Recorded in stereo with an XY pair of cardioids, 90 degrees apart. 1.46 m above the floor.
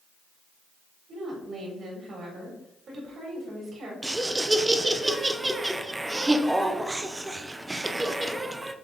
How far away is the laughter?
About 0.9 m.